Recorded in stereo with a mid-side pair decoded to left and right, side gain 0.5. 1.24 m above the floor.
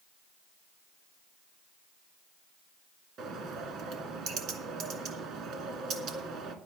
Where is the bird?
60° right, 2 m.